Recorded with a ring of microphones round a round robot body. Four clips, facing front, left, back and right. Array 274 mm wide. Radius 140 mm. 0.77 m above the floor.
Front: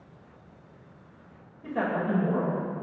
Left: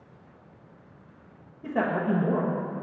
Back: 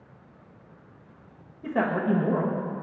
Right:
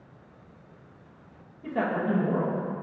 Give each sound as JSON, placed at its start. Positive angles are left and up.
{"t": 1.6, "sound": "a man speaking", "azimuth_deg": 155, "distance_m": 0.9}